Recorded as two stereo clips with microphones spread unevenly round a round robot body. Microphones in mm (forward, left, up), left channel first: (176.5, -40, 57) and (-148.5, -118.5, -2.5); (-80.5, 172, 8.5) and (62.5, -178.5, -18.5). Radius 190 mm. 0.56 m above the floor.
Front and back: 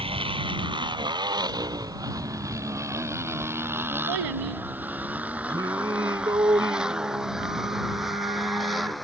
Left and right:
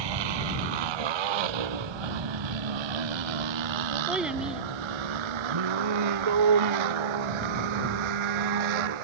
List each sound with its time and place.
0.0 s a motorcycle: 90° right; by 9.0 s 75° right
4.1 s a child speaking: 155° right
5.5 s singing: 85° right